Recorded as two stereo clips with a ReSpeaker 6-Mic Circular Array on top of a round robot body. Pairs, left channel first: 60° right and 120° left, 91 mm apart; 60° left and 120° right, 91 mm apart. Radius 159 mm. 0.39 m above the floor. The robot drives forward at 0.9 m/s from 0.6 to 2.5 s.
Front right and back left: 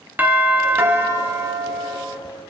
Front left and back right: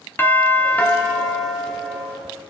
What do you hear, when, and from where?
0.2 s a doorbell: 85° left, 1.4 m; by 2.2 s 160° left, 1.9 m